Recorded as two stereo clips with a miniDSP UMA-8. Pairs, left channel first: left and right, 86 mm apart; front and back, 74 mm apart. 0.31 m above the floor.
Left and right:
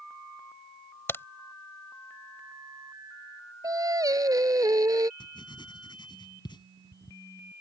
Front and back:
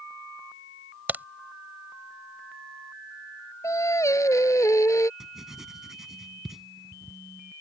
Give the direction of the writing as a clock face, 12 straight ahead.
9 o'clock.